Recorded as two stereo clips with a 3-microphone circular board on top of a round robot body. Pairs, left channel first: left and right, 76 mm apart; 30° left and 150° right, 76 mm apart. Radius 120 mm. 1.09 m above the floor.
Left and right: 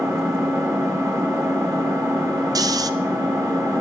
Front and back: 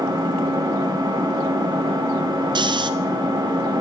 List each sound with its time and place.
0.0 s an engine running: 140° right, 3 m
2.5 s snoring: 130° right, 0.6 m